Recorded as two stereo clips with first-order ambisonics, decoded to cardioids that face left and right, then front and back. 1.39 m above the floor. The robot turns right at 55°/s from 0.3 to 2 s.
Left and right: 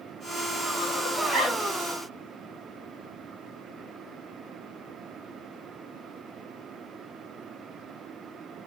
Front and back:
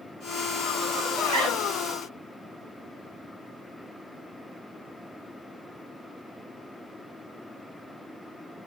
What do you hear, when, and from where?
1.2 s a zipper: straight behind, 2.5 m; by 1.6 s 155° right, 2.5 m